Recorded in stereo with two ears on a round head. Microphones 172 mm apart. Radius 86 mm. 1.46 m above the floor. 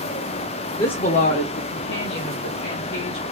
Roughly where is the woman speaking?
Left.